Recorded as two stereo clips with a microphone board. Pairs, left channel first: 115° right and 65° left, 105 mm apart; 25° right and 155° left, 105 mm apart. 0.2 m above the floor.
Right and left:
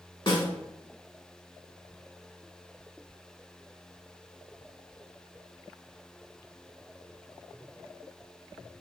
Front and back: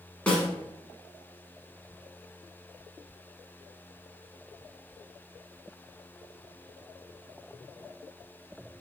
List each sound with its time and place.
0.3 s a snare drum: 100° right, 1.1 m